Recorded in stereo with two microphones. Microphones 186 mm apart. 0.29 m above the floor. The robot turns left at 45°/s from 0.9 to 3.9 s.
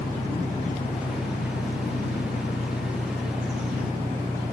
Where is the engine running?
130° left; by 4.5 s 5° right.